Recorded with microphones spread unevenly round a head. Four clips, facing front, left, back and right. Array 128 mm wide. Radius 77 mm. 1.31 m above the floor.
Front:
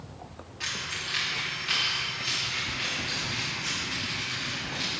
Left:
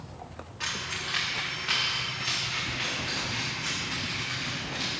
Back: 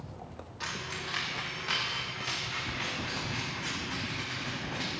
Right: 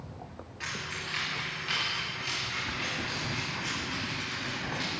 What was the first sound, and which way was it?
Keys jangling, 150° left.